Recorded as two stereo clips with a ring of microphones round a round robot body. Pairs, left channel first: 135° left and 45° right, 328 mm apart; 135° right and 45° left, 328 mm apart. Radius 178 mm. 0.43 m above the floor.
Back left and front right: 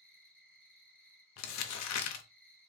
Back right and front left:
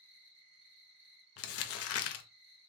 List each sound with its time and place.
0.0 s an insect: 50° left, 3 m
1.4 s crumpling: straight behind, 0.7 m